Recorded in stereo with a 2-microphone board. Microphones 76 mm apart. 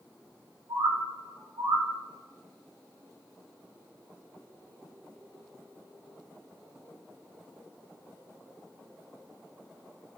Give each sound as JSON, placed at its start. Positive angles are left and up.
{"t": 0.7, "sound": "a bird", "side_deg": -60, "distance_m": 1.9}